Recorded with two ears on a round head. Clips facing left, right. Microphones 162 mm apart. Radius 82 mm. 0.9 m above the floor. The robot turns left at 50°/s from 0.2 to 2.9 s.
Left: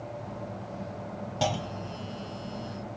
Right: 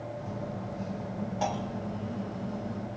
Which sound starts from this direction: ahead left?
A clunk, at 1.4 s.